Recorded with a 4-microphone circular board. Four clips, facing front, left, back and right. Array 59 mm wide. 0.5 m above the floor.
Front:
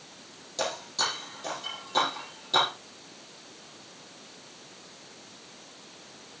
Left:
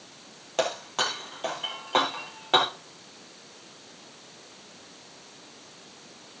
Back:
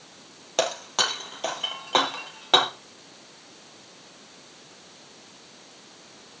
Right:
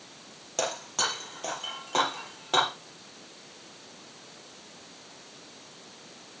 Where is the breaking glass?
165° left, 4 m.